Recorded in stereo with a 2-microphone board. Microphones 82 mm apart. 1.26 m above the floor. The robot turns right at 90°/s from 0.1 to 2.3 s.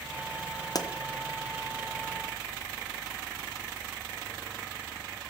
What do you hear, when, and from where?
0.8 s a pop: 50° left (ahead or behind), 0.7 m; by 0.9 s 60° left (ahead or behind), 0.7 m